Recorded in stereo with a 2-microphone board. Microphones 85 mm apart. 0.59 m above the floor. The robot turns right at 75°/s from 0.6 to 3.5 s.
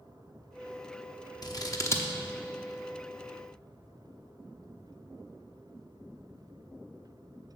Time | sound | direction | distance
1.4 | scissors | 45° left (ahead or behind) | 0.8 m